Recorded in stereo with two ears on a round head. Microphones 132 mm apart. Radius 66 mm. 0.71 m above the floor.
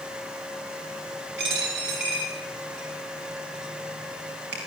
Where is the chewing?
No chewing in this recording.